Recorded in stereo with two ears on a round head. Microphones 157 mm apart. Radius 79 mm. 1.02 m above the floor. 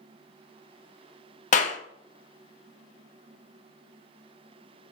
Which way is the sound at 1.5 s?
50° left (ahead or behind).